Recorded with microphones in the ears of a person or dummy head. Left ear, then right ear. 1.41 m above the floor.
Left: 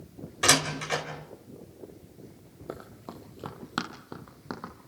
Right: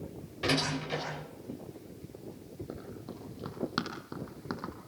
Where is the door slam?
55° left (ahead or behind), 4 m.